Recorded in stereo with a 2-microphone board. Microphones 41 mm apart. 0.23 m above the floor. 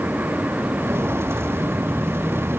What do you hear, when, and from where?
0.8 s footsteps: 80° right; by 2.6 s 75° right (ahead or behind)